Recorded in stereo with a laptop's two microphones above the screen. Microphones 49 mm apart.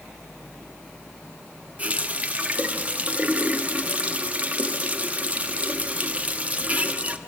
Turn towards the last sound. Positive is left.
turn(degrees=-30)  # may be behind; listen again after turning